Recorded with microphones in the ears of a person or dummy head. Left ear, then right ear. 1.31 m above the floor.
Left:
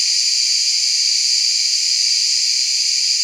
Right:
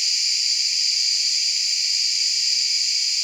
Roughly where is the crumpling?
No crumpling in this recording.